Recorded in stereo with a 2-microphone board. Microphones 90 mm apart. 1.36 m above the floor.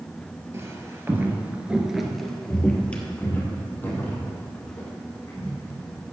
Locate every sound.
0.5 s footsteps: 30° right (ahead or behind), 1.8 m; by 6.0 s 25° left (ahead or behind), 5.5 m